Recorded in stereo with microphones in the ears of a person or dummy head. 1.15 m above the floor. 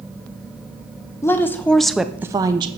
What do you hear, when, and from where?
1.2 s a woman speaking: 15° left (ahead or behind), 0.7 m; by 2.7 s 20° right (ahead or behind), 0.5 m